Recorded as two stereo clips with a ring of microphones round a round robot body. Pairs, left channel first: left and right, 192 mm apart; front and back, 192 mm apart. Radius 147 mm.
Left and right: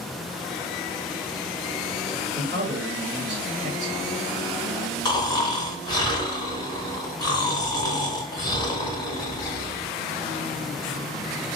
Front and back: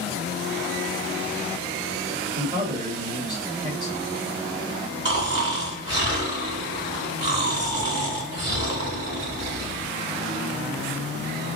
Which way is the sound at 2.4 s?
125° right.